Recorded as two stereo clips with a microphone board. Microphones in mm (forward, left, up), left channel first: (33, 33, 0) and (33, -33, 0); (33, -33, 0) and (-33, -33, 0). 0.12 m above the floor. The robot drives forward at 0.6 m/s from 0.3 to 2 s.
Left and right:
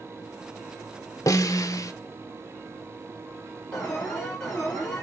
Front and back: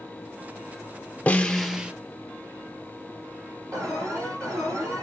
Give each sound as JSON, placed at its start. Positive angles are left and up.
{"t": 1.3, "sound": "a snare drum", "azimuth_deg": 65, "distance_m": 0.6}
{"t": 3.7, "sound": "an alarm", "azimuth_deg": 165, "distance_m": 3.5}